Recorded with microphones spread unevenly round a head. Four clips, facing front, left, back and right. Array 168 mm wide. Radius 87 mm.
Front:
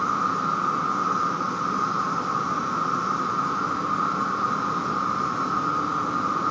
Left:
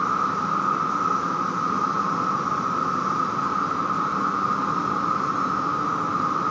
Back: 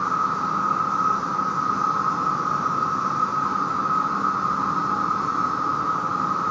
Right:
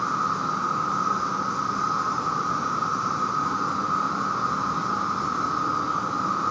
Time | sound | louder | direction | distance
0.0 | an insect | left 2 dB, back 1 dB | 165° left | 1.2 m